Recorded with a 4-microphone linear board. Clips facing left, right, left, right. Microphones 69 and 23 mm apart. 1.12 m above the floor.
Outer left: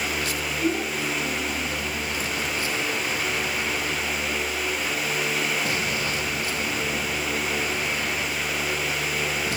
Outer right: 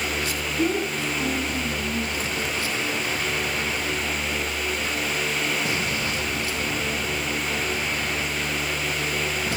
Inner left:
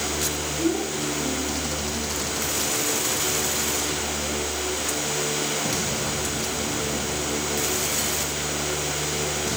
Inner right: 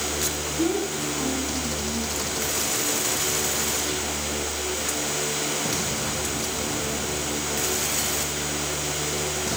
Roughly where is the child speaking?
Right.